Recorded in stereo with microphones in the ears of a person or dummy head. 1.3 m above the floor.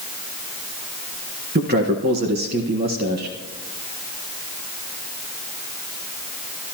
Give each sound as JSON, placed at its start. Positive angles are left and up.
{"t": 1.6, "sound": "a man speaking", "side_deg": -40, "distance_m": 1.2}